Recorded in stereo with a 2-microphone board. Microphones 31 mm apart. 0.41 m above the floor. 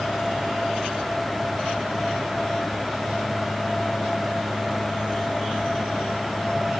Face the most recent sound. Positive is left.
No sound to turn to.